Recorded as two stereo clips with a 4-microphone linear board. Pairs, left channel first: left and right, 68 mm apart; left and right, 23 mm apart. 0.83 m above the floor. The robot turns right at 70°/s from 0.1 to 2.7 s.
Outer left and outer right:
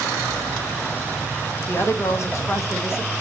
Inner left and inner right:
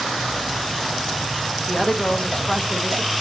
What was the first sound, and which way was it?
A woman speaking, 45° left.